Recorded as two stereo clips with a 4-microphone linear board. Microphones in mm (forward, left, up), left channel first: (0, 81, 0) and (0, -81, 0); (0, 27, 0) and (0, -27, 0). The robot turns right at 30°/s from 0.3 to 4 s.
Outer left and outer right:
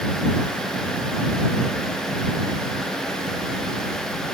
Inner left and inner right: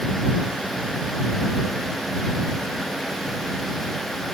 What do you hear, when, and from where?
Only background noise.